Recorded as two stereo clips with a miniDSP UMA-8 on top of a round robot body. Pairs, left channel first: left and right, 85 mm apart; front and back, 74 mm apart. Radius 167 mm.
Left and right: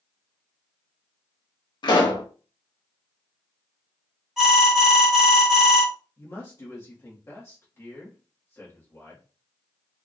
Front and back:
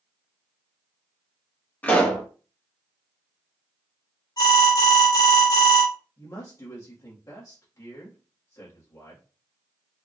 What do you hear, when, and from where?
1.8 s a pop: 65° left, 1.5 m
4.4 s an alarm: 5° right, 2.5 m
6.2 s a man speaking: 35° left, 1.7 m